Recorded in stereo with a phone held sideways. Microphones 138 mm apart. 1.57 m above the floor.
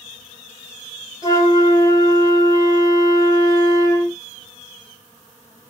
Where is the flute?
25° left (ahead or behind), 2.5 m.